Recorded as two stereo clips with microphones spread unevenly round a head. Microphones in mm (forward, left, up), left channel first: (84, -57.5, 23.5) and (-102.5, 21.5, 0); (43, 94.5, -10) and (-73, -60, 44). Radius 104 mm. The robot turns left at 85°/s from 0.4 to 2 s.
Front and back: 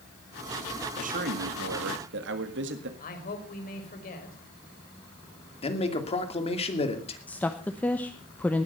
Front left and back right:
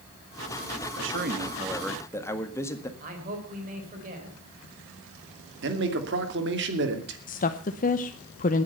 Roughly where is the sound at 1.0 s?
Behind right.